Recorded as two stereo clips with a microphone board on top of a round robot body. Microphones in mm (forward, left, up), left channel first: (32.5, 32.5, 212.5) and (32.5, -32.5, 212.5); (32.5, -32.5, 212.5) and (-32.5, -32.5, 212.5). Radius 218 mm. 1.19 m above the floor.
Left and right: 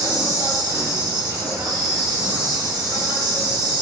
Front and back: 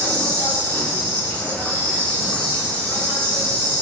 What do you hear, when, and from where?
0.0 s an insect: 70° right, 3 m